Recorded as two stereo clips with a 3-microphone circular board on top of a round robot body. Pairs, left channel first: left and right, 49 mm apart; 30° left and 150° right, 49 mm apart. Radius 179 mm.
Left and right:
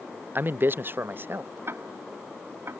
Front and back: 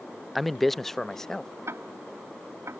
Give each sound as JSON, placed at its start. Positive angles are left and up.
{"t": 0.3, "sound": "a man speaking", "azimuth_deg": -60}
{"t": 1.7, "sound": "ticking", "azimuth_deg": -125}